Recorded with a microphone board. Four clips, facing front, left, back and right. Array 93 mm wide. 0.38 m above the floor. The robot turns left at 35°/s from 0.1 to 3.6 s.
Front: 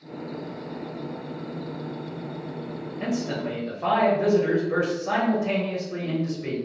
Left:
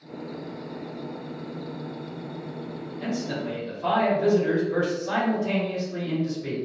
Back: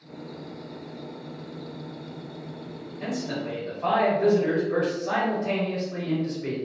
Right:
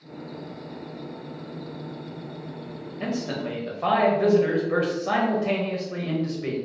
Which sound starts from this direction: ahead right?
A man speaking, at 3.0 s.